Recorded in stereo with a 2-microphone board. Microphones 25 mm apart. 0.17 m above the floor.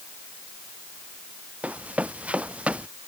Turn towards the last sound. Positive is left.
turn(degrees=-60)  # may be behind; listen again after turning